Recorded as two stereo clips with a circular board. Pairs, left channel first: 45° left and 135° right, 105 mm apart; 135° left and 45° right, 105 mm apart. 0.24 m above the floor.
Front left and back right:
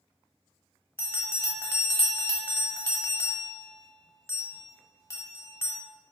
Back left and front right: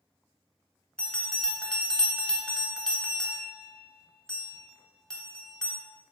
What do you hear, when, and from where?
1.0 s a bell: 70° left, 0.9 m